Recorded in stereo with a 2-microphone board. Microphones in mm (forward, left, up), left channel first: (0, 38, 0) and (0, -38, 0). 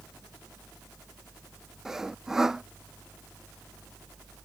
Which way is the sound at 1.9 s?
5° right (ahead or behind).